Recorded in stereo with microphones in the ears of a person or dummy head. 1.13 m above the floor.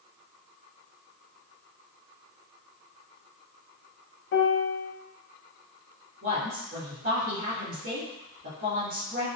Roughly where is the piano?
Left.